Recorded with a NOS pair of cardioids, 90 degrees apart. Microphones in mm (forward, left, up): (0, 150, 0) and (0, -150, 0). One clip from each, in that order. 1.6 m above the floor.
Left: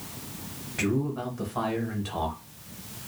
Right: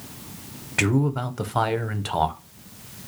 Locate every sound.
0.8 s a man speaking: 50° right, 0.6 m